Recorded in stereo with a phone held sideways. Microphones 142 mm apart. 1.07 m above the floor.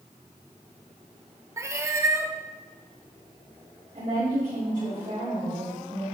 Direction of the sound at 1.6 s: 20° right (ahead or behind).